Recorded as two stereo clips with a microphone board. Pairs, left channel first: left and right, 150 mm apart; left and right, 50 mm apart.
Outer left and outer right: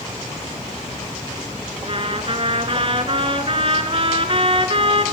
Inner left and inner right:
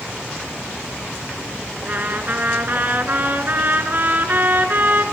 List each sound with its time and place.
1.9 s a trumpet: 40° right (ahead or behind), 1.6 m